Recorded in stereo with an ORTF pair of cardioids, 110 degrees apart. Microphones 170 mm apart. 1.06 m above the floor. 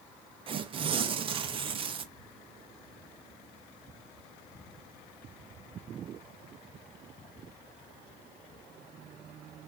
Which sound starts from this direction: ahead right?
Tearing paper, at 0.5 s.